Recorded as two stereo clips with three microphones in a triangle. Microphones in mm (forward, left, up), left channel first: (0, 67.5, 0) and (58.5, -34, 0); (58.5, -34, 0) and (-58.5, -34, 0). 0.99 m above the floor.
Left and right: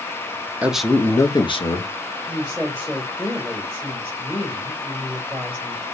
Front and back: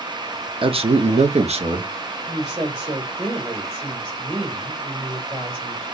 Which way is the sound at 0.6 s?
135° right.